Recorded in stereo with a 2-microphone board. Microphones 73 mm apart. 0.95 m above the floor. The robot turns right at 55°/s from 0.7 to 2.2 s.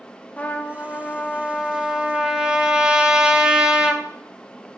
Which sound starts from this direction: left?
A trumpet, at 0.4 s.